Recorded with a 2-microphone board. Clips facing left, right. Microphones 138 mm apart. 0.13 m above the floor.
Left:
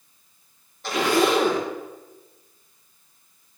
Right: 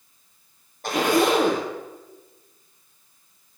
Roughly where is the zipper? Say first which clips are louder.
Right 1 dB; right.